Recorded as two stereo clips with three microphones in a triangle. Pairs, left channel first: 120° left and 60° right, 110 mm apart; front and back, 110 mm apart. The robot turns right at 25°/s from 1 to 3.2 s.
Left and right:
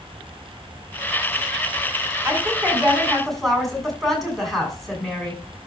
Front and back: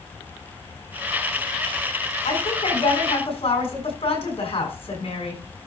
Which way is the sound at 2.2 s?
10° left.